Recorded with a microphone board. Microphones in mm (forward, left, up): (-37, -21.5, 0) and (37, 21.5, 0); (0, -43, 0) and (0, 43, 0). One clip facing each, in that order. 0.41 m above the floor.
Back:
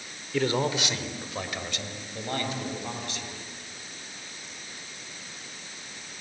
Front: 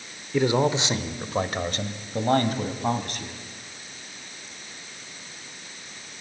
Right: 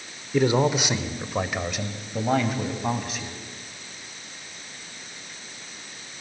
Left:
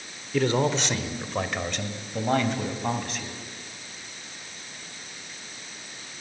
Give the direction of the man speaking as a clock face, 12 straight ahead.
1 o'clock.